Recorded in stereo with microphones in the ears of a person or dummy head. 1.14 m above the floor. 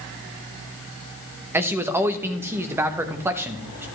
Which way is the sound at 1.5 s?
10° right (ahead or behind).